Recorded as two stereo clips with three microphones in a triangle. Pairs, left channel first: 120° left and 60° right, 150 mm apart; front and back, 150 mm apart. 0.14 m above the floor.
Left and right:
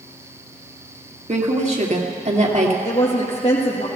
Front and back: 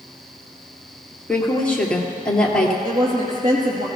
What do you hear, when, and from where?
1.3 s a woman speaking: 85° right, 2 m
2.9 s a woman speaking: 160° left, 4 m